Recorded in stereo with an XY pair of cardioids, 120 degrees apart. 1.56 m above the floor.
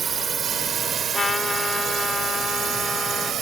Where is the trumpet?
25° left.